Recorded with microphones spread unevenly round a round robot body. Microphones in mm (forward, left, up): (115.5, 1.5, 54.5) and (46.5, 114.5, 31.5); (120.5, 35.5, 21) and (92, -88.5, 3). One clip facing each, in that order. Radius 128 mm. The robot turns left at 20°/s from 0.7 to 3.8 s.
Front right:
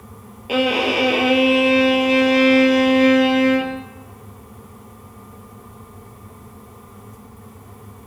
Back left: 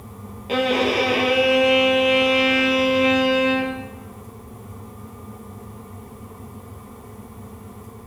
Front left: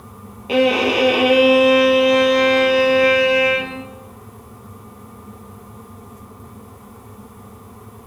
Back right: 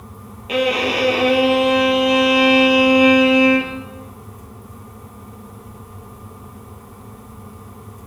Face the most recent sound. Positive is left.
turn(degrees=-45)